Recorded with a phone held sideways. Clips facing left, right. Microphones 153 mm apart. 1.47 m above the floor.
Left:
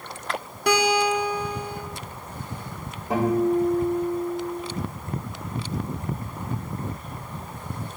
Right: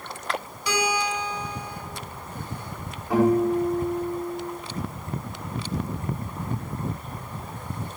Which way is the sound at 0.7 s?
60° left (ahead or behind).